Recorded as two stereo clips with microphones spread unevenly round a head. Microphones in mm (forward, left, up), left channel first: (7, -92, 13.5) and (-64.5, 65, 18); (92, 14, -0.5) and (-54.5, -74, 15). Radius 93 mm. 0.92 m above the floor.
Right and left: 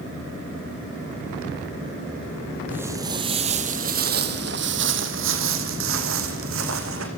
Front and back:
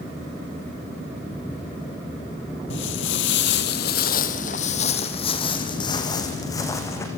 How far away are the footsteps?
About 1.6 m.